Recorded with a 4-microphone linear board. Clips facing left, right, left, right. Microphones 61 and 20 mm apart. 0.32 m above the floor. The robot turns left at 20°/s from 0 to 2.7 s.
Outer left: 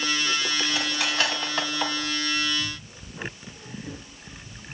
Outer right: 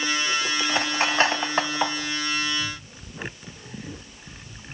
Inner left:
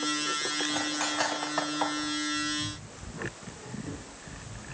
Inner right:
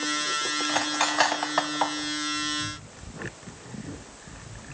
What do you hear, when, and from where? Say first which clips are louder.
0.7 s cutlery clinking: outer right 4 dB, inner right 5 dB; 45° right (ahead or behind), 1.5 m; by 2.0 s 20° right (ahead or behind), 1.5 m